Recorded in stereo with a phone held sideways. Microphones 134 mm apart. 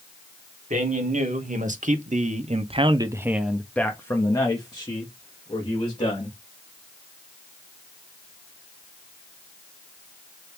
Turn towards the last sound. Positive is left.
turn(degrees=45)  # may be behind; listen again after turning